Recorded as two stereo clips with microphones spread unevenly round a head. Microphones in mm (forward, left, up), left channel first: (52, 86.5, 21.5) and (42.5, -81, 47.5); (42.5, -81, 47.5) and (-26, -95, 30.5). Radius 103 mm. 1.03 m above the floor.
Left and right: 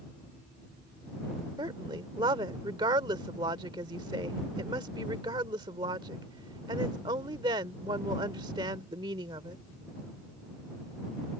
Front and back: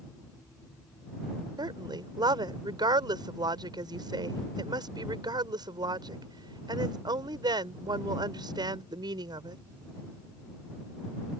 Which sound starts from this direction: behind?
A woman speaking, at 1.6 s.